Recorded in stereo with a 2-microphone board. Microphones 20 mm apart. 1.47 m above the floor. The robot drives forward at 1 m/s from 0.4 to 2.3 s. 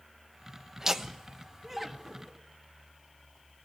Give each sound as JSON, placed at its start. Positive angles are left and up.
{"t": 0.8, "sound": "laughter", "side_deg": -25, "distance_m": 1.1}